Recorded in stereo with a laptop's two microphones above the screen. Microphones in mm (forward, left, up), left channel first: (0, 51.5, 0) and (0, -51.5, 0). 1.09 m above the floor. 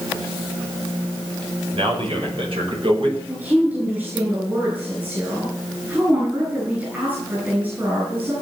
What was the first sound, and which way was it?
A man speaking, 60° right (ahead or behind).